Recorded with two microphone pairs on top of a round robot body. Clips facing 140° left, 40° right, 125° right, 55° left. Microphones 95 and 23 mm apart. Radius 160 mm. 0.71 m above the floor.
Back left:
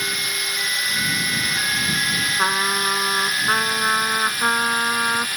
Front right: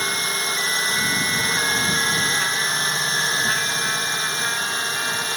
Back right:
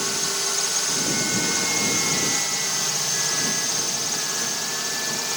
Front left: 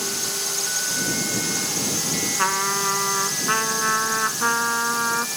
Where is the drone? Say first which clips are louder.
Front right 3 dB, back right 2 dB; 55° right; by 5.4 s 70° right.